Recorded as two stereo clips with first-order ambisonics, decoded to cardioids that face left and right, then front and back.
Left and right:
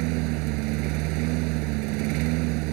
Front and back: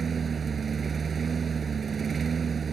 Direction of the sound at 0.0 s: 110° right.